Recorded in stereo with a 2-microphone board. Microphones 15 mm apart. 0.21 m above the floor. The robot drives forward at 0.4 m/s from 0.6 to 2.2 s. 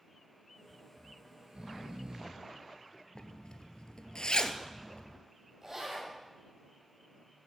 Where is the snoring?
70° right (ahead or behind), 1.2 m; by 3.0 s 55° right (ahead or behind), 1.4 m.